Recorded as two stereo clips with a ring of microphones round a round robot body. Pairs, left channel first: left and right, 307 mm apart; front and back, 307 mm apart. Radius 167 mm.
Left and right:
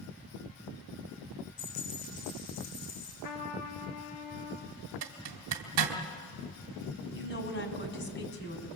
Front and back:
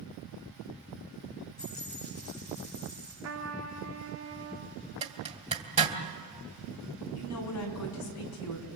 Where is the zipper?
115° right, 2.5 m.